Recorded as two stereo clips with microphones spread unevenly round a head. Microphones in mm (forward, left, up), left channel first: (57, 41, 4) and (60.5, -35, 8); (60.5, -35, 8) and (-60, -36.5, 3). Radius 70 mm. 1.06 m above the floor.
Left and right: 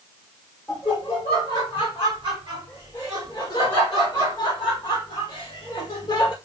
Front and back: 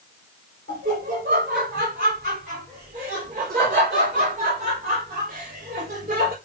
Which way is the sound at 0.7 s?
160° left.